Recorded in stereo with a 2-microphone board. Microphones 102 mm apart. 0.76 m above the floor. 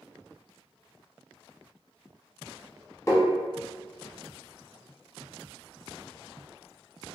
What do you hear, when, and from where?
3.1 s tapping: 25° left (ahead or behind), 1.1 m